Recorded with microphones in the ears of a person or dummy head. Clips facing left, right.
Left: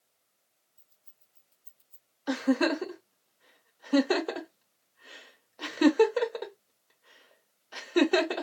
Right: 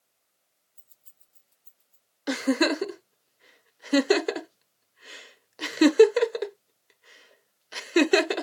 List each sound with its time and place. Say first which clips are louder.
0.8 s keys jangling: right 2 dB; 60° right (ahead or behind), 0.9 m; by 2.1 s 45° left (ahead or behind), 0.8 m
2.3 s a giggle: right 2 dB; 30° right (ahead or behind), 0.6 m